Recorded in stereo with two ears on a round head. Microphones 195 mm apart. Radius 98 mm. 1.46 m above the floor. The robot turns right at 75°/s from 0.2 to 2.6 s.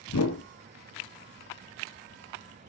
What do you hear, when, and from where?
0.1 s a whoosh: 70° left (ahead or behind), 0.8 m; by 0.4 s 55° left (ahead or behind), 0.8 m